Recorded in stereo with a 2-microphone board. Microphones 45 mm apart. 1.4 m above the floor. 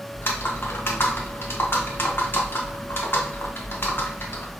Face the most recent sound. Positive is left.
turn(degrees=60)  # may be behind; listen again after turning